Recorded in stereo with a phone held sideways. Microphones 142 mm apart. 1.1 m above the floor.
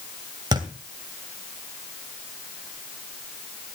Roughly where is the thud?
Right.